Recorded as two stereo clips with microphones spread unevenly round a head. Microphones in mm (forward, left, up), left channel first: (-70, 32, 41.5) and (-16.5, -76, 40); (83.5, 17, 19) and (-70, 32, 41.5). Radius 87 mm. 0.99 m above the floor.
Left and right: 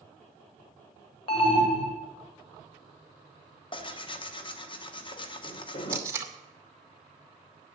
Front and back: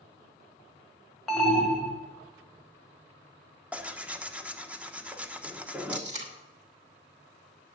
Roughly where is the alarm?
Left.